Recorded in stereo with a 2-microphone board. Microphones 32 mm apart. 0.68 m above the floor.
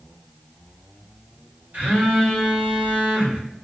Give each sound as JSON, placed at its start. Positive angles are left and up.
{"t": 1.7, "sound": "a phone buzzing", "side_deg": -55, "distance_m": 1.3}